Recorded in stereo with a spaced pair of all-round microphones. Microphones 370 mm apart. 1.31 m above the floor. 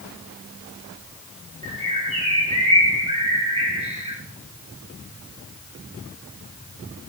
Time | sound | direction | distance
1.6 | a bird | 15° right (ahead or behind) | 5 m